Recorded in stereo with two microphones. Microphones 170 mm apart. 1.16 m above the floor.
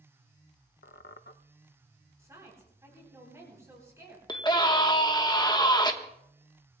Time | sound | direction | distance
0.8 | a squeak | 85° left | 0.5 m
2.2 | a woman speaking | 15° right (ahead or behind) | 9 m
4.3 | a scream | 25° left (ahead or behind) | 1.2 m